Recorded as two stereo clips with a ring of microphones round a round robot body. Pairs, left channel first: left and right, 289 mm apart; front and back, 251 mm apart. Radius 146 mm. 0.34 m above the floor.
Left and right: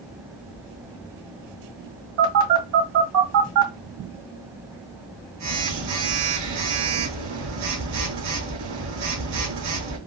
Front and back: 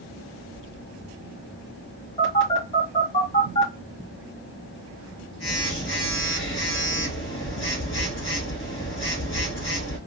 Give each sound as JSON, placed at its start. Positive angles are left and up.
{"t": 2.2, "sound": "a phone buzzing", "azimuth_deg": -70, "distance_m": 2.0}